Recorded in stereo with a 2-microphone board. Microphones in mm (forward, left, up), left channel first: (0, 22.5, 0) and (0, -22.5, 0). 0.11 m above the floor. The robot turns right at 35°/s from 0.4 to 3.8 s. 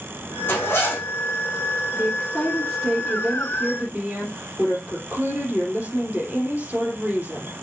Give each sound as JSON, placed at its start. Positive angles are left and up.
{"t": 0.5, "sound": "a zipper", "side_deg": 70, "distance_m": 5.0}
{"t": 1.9, "sound": "a woman speaking", "azimuth_deg": 145, "distance_m": 3.5}